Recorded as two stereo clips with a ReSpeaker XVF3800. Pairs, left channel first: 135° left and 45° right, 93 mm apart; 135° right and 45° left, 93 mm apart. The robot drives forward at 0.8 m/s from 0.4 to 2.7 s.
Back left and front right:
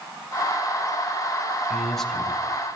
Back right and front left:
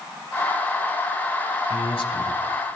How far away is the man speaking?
About 3.5 m.